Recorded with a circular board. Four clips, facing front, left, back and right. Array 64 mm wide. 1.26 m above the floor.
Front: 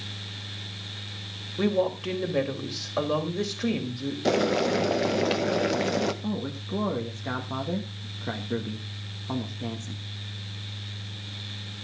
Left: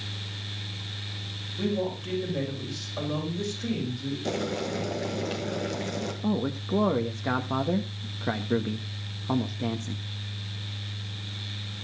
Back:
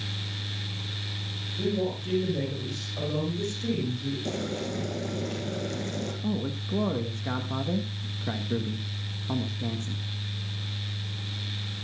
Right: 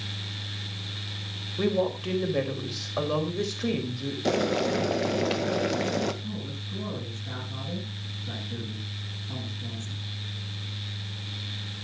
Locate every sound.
1.6 s a woman speaking: 30° right, 4.5 m
4.2 s boiling: 30° right, 1.4 m
6.2 s a man speaking: 85° left, 1.4 m